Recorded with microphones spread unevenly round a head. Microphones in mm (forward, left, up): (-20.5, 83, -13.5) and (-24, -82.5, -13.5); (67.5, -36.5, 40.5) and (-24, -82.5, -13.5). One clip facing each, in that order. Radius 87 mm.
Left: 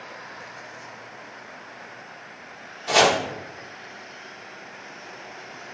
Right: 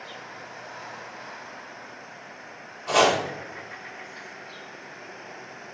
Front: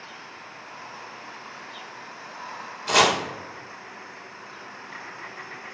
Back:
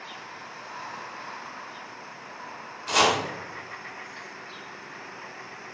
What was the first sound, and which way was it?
Chopping, 10° left.